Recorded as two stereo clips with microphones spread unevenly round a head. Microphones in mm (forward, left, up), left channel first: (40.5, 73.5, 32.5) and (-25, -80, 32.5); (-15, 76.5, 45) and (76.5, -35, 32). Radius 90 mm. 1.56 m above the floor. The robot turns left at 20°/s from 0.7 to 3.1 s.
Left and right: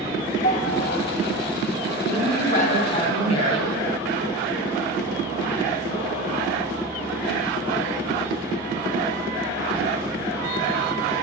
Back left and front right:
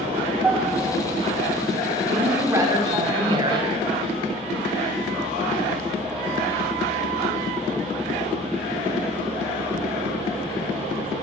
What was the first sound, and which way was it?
A piano, 30° left.